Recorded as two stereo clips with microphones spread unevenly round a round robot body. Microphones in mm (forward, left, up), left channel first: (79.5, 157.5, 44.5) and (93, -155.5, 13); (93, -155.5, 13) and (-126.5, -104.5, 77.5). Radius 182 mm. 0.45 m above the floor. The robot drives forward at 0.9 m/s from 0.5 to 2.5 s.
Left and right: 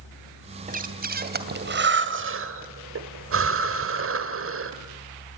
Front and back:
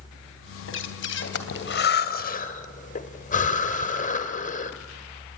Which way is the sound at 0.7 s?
25° right.